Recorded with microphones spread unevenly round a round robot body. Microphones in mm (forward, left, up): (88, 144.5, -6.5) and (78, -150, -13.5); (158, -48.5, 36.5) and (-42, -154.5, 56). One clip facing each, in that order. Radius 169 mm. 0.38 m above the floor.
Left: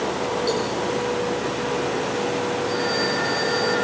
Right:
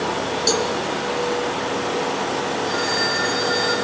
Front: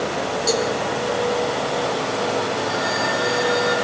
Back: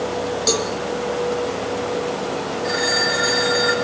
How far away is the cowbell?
About 2.5 m.